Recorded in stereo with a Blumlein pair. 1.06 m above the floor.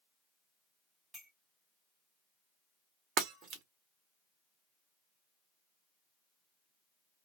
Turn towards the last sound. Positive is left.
turn(degrees=-30)